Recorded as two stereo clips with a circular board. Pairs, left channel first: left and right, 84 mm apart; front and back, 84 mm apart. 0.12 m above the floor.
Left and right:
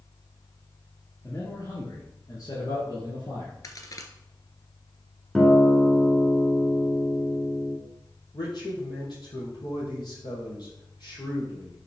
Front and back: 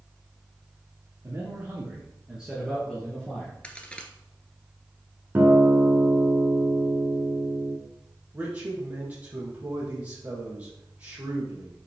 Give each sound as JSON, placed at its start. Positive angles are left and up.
{"t": 1.2, "sound": "a man speaking", "azimuth_deg": 135, "distance_m": 3.0}
{"t": 3.6, "sound": "a crack", "azimuth_deg": 70, "distance_m": 1.2}
{"t": 5.3, "sound": "a guitar", "azimuth_deg": 165, "distance_m": 1.5}
{"t": 8.3, "sound": "a man speaking", "azimuth_deg": 110, "distance_m": 4.0}